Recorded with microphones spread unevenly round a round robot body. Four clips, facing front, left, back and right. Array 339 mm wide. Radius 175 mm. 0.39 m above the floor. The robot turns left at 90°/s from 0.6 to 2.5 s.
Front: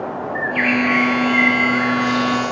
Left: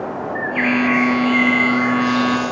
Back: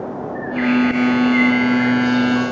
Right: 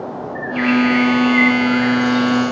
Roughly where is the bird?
Ahead.